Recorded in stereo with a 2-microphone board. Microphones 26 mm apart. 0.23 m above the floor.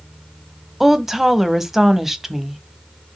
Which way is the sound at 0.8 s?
15° right (ahead or behind).